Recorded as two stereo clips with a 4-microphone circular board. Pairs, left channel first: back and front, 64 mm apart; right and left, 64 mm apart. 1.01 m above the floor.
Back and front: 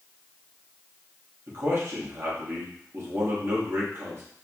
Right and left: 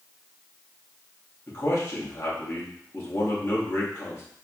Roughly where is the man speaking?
Ahead right.